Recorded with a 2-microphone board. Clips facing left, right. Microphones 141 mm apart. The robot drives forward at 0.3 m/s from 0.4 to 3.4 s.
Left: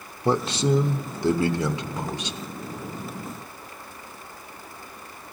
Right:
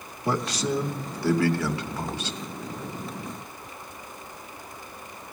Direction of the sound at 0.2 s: 25° left (ahead or behind).